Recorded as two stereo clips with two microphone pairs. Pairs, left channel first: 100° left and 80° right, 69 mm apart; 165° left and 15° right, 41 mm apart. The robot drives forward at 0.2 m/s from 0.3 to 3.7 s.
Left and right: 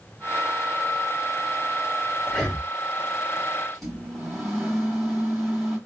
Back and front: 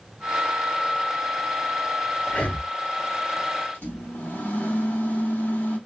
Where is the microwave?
170° right, 2.5 m.